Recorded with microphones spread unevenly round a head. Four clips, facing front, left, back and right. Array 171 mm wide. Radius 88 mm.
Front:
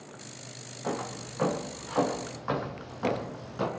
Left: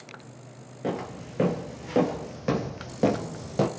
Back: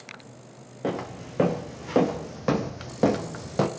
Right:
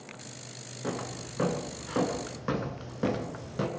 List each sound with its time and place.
0.8 s footsteps: 160° left, 3.5 m; by 3.7 s 140° left, 2 m